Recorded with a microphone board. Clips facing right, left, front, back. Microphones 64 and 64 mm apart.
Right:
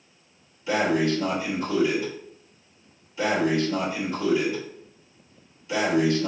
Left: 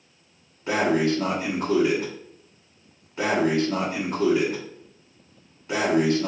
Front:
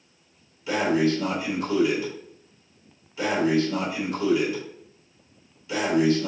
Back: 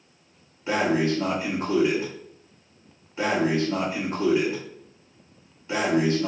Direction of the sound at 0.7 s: 130° left.